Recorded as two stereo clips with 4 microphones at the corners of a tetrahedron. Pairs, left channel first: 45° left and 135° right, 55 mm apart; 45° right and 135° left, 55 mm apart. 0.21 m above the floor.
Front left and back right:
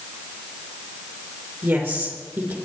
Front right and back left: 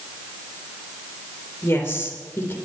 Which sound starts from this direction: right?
A woman speaking, at 1.6 s.